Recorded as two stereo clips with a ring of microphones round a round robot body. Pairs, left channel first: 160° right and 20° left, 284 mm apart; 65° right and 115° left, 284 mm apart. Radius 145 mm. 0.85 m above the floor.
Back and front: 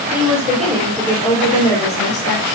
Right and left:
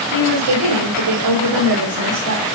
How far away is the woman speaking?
About 4 m.